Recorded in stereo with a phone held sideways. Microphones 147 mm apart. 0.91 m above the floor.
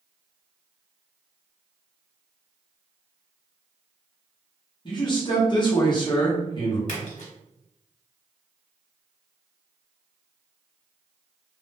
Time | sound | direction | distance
4.8 | a man speaking | 35° left (ahead or behind) | 1.0 m
6.9 | a splash | 60° left (ahead or behind) | 1.2 m